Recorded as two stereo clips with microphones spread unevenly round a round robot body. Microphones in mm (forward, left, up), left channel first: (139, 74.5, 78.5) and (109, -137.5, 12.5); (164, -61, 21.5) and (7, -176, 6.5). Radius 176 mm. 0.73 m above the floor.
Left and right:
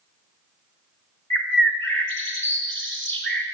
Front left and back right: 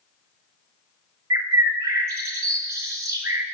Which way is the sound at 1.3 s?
175° right.